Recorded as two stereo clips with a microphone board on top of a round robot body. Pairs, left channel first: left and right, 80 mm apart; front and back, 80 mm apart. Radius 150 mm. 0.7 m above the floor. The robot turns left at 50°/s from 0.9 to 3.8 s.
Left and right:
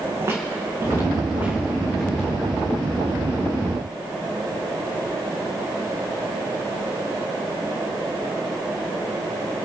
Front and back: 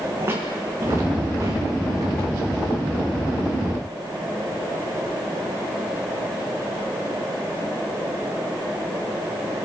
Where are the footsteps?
135° right, 3.5 m; by 2.3 s 165° left, 4.5 m.